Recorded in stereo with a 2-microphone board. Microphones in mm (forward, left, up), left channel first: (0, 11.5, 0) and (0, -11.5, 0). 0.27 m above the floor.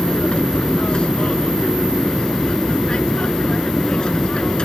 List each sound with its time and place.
0.0 s an aircraft: 45° left (ahead or behind); by 4.7 s 40° left (ahead or behind)